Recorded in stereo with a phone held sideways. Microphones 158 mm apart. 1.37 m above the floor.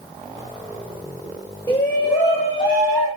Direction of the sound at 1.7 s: 15° left (ahead or behind).